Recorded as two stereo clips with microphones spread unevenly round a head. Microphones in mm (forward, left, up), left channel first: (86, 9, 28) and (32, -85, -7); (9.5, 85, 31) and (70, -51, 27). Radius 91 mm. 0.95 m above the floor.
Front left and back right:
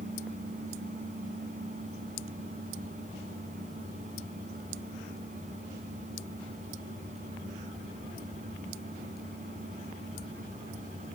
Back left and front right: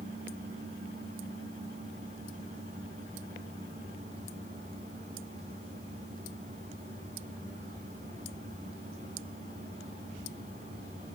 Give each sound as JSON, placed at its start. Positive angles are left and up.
{"t": 0.0, "sound": "a fan", "azimuth_deg": -120, "distance_m": 3.0}